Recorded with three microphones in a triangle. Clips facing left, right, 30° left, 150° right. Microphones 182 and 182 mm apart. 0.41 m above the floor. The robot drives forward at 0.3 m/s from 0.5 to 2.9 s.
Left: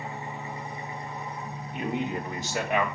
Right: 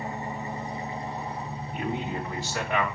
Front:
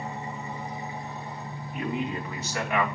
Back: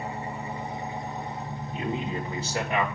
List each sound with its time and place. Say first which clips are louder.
0.0 s an engine running: right 3 dB, back 2 dB; 135° right, 1.4 m; by 3.0 s 150° right, 1.9 m
1.7 s a man speaking: left 1 dB, front 1 dB; 155° left, 1.9 m; by 2.9 s 160° left, 2 m